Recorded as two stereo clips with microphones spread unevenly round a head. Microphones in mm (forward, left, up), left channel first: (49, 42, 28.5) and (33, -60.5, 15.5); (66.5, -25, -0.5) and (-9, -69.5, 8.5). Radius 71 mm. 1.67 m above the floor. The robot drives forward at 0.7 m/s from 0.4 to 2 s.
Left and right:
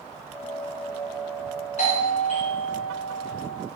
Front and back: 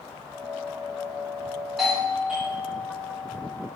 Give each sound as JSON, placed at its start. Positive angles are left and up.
{"t": 1.8, "sound": "a doorbell", "azimuth_deg": 120, "distance_m": 1.7}